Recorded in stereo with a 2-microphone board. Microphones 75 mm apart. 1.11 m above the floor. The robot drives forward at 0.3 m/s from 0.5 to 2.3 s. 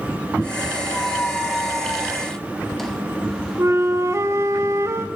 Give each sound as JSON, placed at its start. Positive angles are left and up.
{"t": 0.9, "sound": "a squeak", "side_deg": 5, "distance_m": 0.6}
{"t": 3.6, "sound": "a flute", "side_deg": -40, "distance_m": 0.7}